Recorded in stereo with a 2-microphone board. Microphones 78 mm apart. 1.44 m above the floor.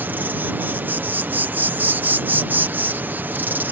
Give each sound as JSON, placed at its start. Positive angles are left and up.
{"t": 0.0, "sound": "an insect", "side_deg": -25}